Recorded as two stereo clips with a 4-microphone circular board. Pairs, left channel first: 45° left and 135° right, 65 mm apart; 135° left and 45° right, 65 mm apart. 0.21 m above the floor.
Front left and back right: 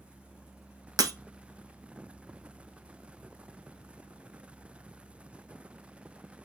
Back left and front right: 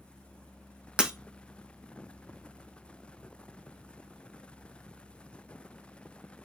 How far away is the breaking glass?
About 0.5 m.